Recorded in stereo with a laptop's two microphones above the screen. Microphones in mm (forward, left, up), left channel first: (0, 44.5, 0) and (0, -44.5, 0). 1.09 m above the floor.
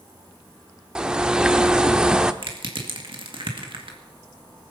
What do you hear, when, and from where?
0.9 s a bird: 10° right (ahead or behind), 0.8 m
2.4 s crushing: 70° right (ahead or behind), 2 m